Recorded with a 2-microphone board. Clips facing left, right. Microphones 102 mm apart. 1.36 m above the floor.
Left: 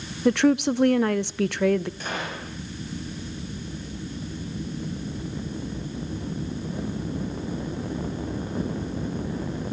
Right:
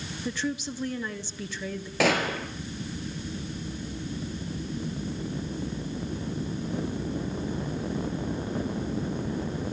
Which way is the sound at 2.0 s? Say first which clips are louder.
Right 7 dB; 75° right (ahead or behind).